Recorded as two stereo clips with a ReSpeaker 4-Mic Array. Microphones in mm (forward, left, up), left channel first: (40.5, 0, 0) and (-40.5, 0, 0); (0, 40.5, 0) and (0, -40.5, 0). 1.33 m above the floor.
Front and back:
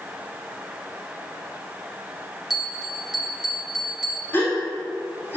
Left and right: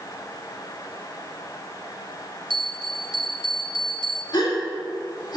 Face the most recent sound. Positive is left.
turn(degrees=60)